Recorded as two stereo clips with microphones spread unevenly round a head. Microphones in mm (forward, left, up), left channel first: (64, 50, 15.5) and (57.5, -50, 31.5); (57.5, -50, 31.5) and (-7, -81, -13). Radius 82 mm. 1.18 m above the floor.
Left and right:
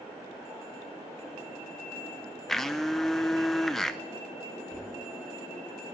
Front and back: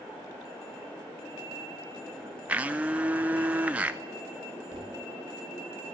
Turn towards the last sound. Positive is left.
turn(degrees=-165)